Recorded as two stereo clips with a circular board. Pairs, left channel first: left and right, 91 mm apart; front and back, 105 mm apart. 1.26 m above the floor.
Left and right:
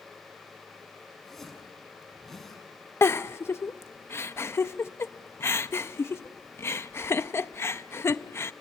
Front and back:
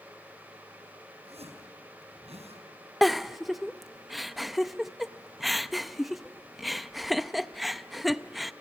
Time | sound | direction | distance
1.2 | a zipper | 175° left | 5.5 m
3.0 | a giggle | 90° left | 0.6 m